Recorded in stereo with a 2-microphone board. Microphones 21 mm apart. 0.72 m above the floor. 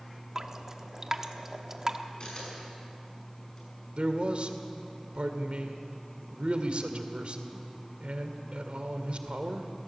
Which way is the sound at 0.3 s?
25° right (ahead or behind).